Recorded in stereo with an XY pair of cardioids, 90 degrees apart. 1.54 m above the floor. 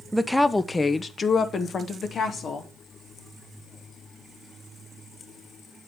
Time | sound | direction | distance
0.1 | a woman speaking | 10° right | 0.5 m